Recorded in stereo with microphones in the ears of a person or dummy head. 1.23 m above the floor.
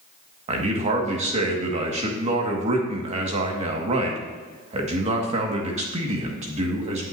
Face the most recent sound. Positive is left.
turn(degrees=-40)  # may be behind; listen again after turning